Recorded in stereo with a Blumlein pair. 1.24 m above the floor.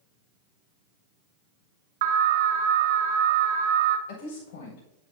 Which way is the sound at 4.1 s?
60° left.